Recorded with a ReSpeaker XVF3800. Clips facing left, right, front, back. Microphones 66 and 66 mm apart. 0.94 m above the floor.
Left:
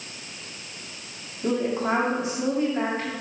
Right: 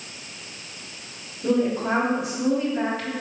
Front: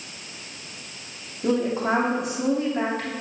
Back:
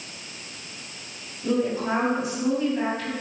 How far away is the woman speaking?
About 2 m.